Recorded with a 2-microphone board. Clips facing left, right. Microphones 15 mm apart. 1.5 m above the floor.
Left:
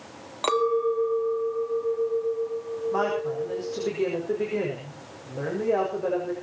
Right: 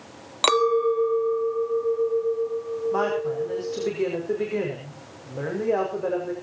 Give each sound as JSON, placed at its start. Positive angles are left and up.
{"t": 0.4, "sound": "a clink", "side_deg": -60, "distance_m": 0.7}
{"t": 2.9, "sound": "a woman speaking", "side_deg": -10, "distance_m": 5.5}